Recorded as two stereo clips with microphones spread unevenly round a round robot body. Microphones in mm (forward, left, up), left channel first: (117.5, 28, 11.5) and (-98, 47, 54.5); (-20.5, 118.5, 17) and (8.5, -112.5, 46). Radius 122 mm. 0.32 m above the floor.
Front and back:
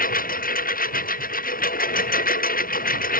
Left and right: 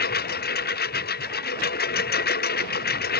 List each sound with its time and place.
0.0 s a lawn mower: 45° left